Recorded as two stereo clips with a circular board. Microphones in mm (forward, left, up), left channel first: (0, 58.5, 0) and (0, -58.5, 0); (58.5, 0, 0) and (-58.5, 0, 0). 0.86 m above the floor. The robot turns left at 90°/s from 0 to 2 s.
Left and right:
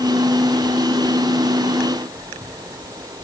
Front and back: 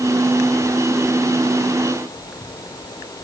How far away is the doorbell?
I don't hear a doorbell.